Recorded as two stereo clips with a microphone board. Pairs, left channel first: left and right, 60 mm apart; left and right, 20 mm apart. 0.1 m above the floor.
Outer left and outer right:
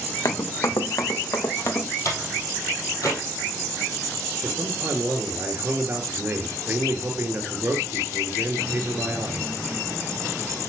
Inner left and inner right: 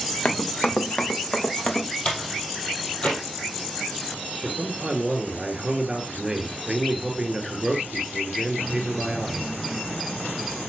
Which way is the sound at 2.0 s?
65° left (ahead or behind).